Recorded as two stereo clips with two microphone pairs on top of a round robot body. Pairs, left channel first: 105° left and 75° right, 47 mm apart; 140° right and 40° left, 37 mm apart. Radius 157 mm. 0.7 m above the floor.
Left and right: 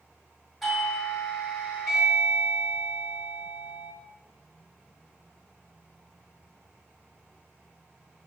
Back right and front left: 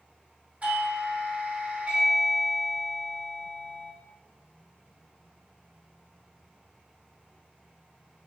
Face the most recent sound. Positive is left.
turn(degrees=30)